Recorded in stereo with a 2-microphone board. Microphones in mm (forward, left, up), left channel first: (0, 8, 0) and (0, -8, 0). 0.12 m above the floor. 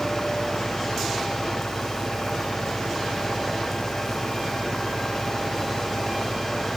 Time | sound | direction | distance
0.0 | an engine running | 40° left (ahead or behind) | ?